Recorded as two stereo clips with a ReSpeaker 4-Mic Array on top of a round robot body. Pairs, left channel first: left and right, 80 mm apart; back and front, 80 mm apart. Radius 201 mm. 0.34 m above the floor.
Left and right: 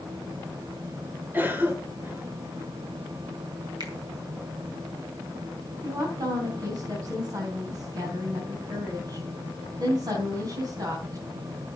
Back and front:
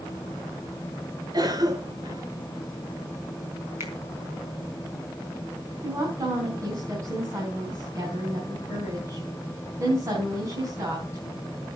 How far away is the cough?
About 2.5 m.